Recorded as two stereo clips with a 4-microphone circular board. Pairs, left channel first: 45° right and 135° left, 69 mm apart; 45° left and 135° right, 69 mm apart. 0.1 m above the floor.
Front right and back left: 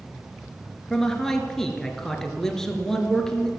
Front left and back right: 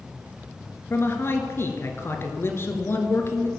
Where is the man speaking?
35° left, 1.3 m.